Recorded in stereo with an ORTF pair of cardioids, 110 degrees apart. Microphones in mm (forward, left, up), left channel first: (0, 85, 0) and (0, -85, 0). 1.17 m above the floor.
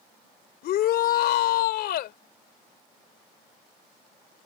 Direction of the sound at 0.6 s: 65° left.